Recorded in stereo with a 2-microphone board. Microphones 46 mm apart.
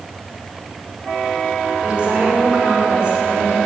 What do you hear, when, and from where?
1.8 s a woman speaking: 20° right (ahead or behind), 5 m